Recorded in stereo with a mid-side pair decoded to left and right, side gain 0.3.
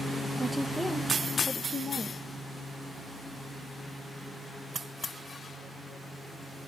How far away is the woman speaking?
About 0.9 m.